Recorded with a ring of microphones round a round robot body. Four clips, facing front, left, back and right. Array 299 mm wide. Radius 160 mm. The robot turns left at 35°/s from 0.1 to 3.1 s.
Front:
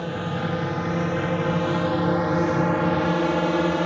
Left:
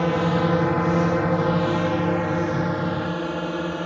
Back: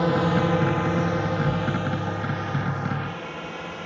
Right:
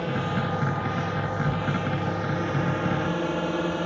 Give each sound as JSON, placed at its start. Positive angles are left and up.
{"t": 0.0, "sound": "a drone", "azimuth_deg": 130}